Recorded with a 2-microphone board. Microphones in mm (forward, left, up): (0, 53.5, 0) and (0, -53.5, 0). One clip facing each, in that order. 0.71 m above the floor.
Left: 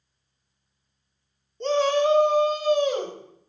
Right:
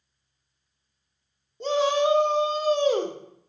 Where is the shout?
10° right (ahead or behind), 1.4 m; by 3.2 s 40° right (ahead or behind), 2.0 m.